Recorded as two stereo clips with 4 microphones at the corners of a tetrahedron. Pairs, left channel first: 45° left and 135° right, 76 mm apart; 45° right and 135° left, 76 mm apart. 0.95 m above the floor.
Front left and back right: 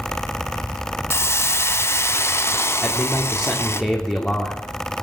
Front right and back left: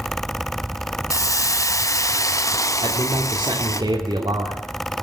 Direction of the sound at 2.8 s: 125° left.